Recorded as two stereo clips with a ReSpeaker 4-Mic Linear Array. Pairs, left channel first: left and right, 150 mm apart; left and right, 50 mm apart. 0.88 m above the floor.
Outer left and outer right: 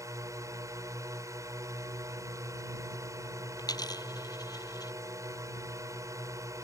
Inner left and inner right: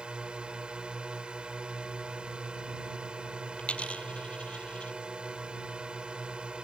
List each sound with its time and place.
0.0 s a drone: 20° right (ahead or behind)
3.6 s a dropped coin: 25° left (ahead or behind)